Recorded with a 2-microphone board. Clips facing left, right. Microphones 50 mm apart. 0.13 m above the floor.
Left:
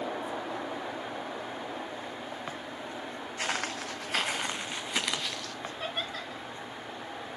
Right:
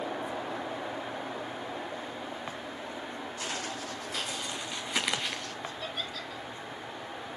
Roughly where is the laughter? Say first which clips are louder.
Left 5 dB; left.